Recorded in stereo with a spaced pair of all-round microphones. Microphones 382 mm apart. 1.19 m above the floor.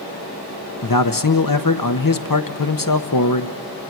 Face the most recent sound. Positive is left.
turn(degrees=60)  # may be behind; listen again after turning